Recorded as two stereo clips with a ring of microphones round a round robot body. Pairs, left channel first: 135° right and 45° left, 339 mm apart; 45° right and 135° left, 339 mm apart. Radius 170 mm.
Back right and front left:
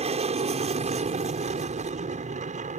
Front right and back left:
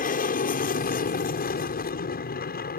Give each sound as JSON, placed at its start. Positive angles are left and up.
{"t": 0.0, "sound": "an aircraft", "azimuth_deg": -10}